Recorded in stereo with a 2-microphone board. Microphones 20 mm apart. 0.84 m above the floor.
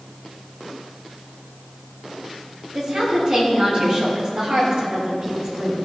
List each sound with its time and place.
2.7 s a woman speaking: 55° right (ahead or behind), 3.5 m